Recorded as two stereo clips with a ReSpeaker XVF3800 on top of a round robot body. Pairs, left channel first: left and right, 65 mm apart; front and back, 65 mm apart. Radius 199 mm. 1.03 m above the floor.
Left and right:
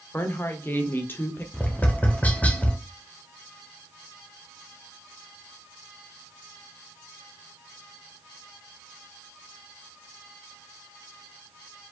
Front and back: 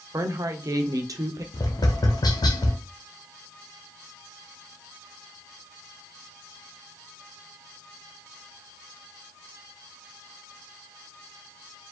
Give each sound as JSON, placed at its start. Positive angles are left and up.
{"t": 0.1, "sound": "a woman speaking", "azimuth_deg": 145, "distance_m": 0.9}
{"t": 1.5, "sound": "tapping", "azimuth_deg": 20, "distance_m": 0.7}